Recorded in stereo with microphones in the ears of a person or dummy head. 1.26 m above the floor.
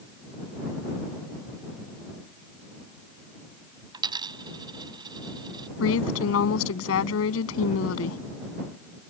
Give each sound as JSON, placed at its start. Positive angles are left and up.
{"t": 3.9, "sound": "a dropped coin", "side_deg": -25}
{"t": 5.8, "sound": "a woman speaking", "side_deg": 90}